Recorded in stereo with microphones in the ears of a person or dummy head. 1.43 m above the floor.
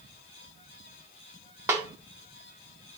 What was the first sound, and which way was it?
A snare drum, 15° right (ahead or behind).